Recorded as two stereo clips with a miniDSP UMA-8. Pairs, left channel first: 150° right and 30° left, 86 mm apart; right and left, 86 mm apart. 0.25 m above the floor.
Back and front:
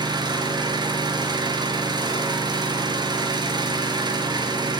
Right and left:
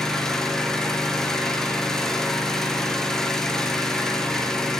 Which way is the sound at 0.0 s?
5° right.